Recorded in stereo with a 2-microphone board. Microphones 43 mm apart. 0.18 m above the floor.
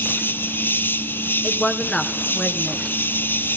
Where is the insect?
65° left (ahead or behind), 1.2 m.